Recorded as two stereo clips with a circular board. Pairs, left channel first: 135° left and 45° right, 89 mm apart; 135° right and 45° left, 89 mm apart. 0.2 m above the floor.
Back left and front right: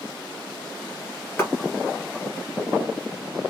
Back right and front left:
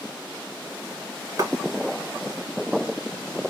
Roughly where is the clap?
Left.